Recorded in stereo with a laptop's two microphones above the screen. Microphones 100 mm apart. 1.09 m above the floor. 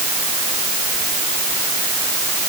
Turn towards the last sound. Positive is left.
No sound to turn to.